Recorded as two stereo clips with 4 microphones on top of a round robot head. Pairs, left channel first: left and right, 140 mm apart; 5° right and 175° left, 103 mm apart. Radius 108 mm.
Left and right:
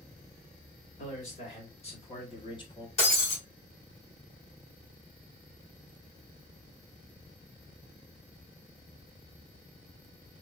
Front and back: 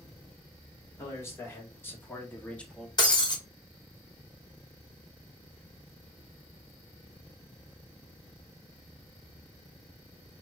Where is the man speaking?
55° left, 2.5 m; by 2.9 s 75° left, 1.0 m.